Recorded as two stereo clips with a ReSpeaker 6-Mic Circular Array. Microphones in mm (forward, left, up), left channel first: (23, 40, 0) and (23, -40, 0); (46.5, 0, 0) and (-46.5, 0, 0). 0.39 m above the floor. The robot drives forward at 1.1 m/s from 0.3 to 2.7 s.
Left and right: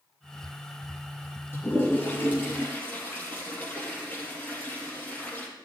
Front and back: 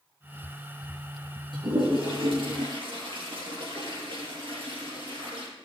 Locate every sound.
1.5 s a toilet flushing: 150° left, 4.5 m; by 5.5 s 155° left, 5.5 m